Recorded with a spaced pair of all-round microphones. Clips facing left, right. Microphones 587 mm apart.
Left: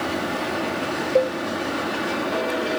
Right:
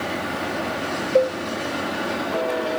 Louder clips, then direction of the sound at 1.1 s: Right 2 dB; 35° right (ahead or behind).